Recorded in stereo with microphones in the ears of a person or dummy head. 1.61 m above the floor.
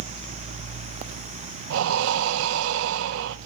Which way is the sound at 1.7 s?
75° right (ahead or behind).